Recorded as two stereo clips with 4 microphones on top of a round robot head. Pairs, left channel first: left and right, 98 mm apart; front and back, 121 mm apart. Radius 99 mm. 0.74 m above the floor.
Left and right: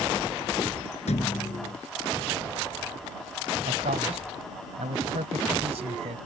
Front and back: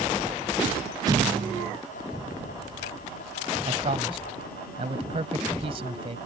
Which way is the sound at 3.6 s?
125° right.